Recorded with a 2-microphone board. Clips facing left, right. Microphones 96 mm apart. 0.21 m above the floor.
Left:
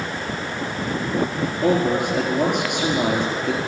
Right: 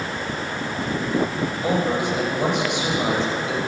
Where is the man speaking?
55° left (ahead or behind), 4 m.